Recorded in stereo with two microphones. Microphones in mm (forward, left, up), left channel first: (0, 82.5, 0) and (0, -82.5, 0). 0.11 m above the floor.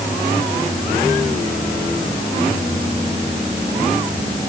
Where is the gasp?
No gasp in this recording.